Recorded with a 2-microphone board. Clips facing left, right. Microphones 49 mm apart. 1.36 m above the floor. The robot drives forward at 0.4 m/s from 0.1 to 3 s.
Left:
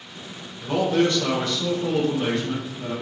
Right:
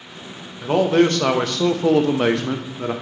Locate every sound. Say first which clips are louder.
0.6 s a man speaking: right 5 dB; 40° right (ahead or behind), 0.8 m; by 2.9 s 60° right (ahead or behind), 0.6 m